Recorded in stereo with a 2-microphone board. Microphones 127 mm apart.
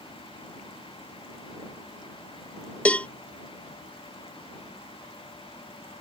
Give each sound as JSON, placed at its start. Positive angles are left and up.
{"t": 2.9, "sound": "a cowbell", "side_deg": 10}